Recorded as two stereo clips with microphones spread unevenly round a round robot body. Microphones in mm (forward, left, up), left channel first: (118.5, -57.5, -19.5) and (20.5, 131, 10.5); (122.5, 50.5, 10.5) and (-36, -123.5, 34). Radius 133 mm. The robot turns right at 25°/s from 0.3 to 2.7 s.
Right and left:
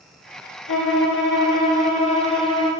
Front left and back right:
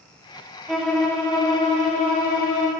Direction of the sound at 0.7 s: 40° right.